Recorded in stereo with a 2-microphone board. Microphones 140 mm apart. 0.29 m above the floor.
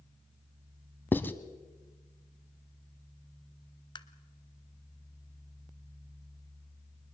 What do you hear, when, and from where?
1.1 s writing: 15° left (ahead or behind), 0.9 m
4.0 s tapping: 30° left (ahead or behind), 1.0 m